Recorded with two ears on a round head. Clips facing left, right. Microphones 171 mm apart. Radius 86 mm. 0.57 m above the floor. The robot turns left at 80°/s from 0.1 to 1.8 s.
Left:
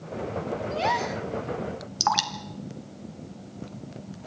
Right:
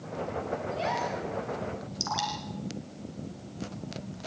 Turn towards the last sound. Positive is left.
turn(degrees=70)  # may be behind; listen again after turning